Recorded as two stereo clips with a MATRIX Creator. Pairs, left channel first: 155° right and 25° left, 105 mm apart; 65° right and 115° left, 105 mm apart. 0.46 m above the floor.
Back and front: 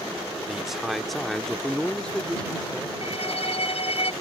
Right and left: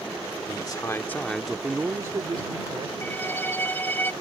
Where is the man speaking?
65° right; by 2.9 s 125° left.